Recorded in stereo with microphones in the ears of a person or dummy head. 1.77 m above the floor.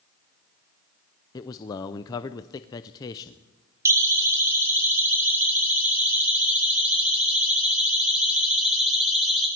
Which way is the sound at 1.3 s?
20° left (ahead or behind).